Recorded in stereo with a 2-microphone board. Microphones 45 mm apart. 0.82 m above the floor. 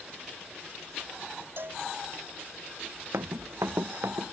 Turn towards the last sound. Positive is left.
turn(degrees=-80)